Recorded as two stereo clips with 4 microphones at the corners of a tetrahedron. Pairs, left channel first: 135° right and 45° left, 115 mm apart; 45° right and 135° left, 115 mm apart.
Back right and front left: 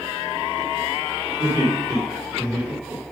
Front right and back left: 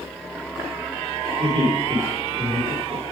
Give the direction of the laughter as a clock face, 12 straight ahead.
9 o'clock.